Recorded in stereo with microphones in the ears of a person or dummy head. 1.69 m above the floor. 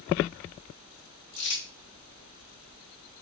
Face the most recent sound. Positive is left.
turn(degrees=30)  # may be behind; listen again after turning